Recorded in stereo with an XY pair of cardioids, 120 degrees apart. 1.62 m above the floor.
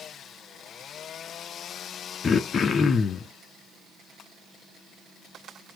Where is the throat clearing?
35° left, 0.9 m.